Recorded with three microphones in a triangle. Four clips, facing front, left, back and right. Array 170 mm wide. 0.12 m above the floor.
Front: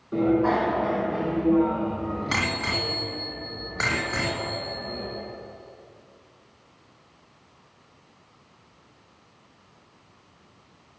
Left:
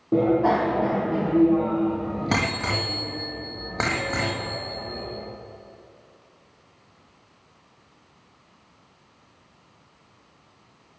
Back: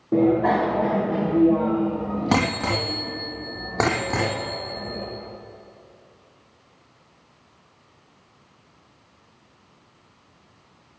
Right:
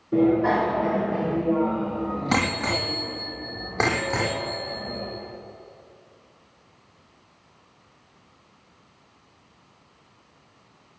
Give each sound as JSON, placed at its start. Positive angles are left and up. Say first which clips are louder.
{"t": 0.1, "sound": "a bicycle bell", "louder": "even, back 3 dB", "azimuth_deg": 135, "distance_m": 3.0}